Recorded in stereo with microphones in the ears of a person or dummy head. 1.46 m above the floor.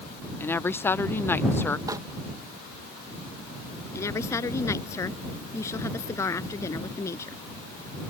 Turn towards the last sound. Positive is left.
turn(degrees=15)  # may be behind; listen again after turning